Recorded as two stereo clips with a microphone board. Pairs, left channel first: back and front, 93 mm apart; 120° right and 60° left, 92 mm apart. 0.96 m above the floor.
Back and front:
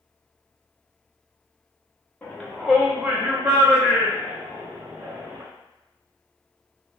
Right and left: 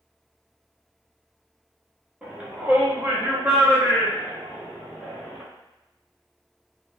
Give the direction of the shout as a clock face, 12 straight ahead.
8 o'clock.